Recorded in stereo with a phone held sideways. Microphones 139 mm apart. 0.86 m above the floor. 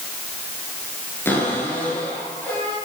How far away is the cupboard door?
About 8.5 m.